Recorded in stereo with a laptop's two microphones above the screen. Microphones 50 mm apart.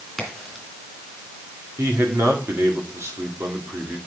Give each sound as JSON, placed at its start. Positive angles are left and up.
{"t": 0.2, "sound": "a crack", "side_deg": 0, "distance_m": 2.5}
{"t": 1.8, "sound": "a man speaking", "side_deg": -75, "distance_m": 2.5}